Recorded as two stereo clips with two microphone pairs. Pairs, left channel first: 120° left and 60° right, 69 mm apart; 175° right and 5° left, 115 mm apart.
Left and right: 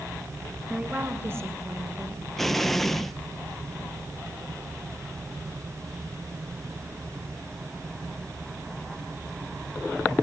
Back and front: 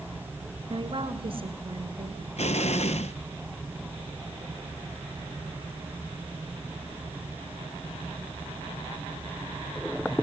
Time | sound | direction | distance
0.7 | a woman speaking | 10° left | 1.6 m
2.4 | an explosion | 160° right | 0.6 m